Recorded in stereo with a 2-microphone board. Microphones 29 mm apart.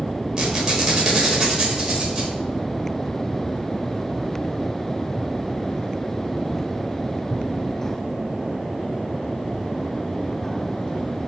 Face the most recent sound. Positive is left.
turn(degrees=-30)  # may be behind; listen again after turning